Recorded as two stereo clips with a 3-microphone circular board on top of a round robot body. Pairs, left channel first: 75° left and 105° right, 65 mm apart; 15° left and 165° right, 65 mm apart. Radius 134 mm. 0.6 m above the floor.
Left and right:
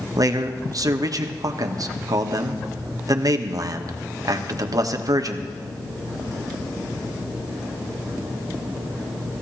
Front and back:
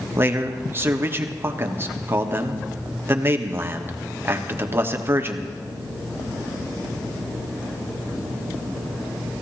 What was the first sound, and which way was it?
A man speaking, 115° right.